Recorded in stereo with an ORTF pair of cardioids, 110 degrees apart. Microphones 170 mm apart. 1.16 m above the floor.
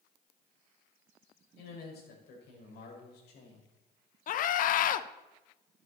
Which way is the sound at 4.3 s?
55° left.